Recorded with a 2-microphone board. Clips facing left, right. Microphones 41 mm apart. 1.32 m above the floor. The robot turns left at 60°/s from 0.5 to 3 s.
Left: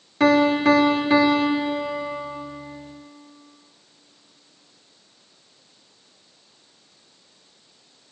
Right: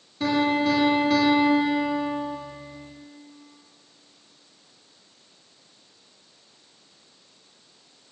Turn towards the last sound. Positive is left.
turn(degrees=-80)